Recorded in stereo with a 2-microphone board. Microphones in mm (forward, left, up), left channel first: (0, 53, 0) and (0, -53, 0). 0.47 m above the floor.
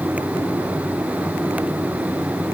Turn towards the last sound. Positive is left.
No sound to turn to.